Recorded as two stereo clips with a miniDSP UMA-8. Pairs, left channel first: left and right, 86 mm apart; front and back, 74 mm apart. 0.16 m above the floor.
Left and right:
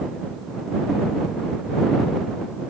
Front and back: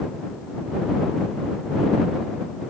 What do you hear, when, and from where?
Only background noise.